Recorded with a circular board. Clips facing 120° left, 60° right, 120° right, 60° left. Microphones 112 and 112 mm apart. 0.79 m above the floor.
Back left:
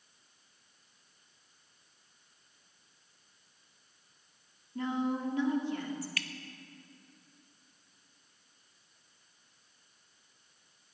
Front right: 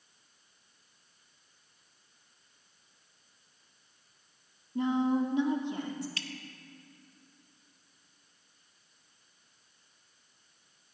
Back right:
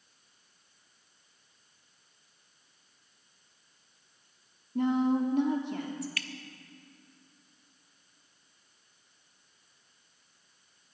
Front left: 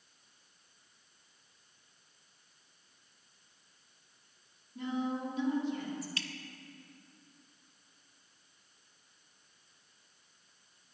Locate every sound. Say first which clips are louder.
4.8 s a woman speaking: front right 5 dB, back right 9 dB; 130° right, 1.9 m
6.2 s dripping: back left 1 dB, back right 1 dB; straight ahead, 0.7 m